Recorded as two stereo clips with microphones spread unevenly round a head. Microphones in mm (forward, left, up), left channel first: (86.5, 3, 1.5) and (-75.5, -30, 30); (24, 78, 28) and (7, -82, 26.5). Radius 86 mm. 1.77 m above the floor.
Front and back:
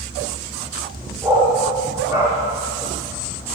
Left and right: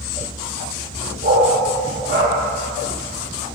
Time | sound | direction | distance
1.2 | a dog barking | 105° right | 1.9 m